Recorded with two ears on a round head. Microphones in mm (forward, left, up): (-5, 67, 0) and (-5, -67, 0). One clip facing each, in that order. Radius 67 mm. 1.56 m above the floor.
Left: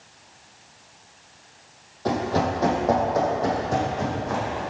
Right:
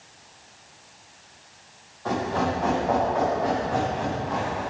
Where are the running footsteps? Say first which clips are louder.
Left 2 dB; 50° left (ahead or behind), 3 m; by 4.6 s 55° left (ahead or behind), 4.5 m.